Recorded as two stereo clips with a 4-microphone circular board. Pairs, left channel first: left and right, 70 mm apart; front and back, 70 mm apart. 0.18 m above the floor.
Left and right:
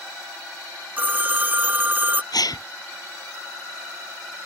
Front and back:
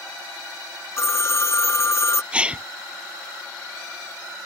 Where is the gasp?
105° left.